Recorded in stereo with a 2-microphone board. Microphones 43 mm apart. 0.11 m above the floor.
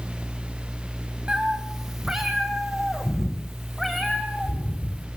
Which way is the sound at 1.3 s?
15° right (ahead or behind).